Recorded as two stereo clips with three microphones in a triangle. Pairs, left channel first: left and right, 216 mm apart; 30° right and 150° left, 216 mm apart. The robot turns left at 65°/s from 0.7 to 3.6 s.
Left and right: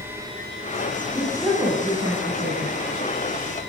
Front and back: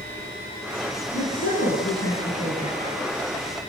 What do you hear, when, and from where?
1.1 s a woman speaking: 25° left, 9.5 m; by 2.8 s 85° right, 9.5 m